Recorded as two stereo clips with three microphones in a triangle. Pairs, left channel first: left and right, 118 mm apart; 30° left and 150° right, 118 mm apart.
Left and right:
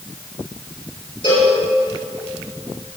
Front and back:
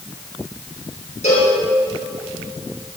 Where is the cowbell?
50° left, 4 m.